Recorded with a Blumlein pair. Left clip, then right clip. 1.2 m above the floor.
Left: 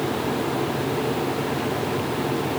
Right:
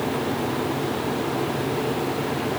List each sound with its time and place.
Only background noise.